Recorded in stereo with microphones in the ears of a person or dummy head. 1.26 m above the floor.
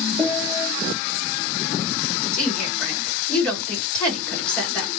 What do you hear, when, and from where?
0.2 s a piano: 10° right (ahead or behind), 1.0 m
2.3 s a woman speaking: 5° left (ahead or behind), 1.9 m